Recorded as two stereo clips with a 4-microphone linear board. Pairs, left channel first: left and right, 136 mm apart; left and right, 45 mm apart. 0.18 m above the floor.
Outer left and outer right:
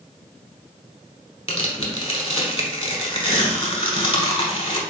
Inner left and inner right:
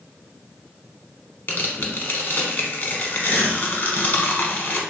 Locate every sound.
1.5 s tearing paper: 40° left (ahead or behind), 0.8 m